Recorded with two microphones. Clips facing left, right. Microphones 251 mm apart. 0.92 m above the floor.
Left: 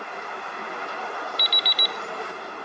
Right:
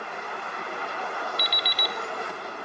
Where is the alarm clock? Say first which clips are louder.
Even; 60° right (ahead or behind), 0.8 m.